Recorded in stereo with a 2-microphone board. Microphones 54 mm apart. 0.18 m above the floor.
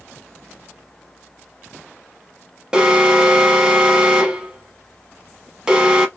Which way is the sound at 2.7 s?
15° right (ahead or behind).